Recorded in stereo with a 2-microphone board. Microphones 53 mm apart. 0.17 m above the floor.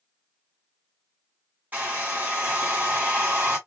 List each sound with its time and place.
1.7 s a hair dryer: 30° right (ahead or behind), 1.9 m